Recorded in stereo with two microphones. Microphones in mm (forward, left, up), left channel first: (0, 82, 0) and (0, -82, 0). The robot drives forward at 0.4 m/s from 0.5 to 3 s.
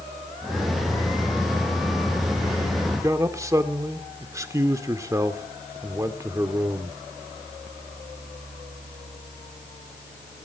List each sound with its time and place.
2.9 s a man speaking: 20° right (ahead or behind), 0.9 m